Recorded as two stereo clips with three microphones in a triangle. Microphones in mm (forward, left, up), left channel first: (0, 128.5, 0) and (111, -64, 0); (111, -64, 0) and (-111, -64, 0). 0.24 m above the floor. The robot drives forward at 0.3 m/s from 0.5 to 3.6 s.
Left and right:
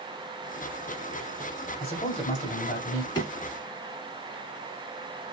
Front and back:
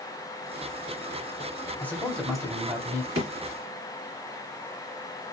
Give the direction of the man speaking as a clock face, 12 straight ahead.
9 o'clock.